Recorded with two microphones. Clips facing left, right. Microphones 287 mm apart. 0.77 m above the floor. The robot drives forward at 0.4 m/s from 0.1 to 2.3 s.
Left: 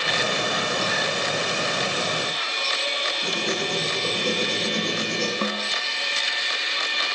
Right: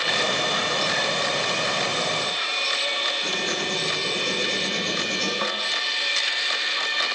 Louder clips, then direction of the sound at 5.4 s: Left 3 dB; 35° left (ahead or behind).